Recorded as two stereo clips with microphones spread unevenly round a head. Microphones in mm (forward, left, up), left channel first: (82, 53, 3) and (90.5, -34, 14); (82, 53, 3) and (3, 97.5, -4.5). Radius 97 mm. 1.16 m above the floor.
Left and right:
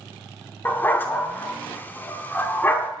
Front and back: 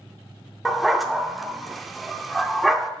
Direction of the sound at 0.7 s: 50° left.